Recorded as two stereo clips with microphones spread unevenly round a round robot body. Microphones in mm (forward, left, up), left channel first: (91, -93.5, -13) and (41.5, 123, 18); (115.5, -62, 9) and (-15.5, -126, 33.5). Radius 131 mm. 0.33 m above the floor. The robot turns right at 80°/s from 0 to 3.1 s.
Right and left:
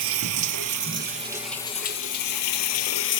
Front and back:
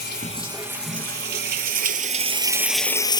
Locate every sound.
0.0 s running water: 70° left, 0.8 m; by 3.2 s 40° right, 0.8 m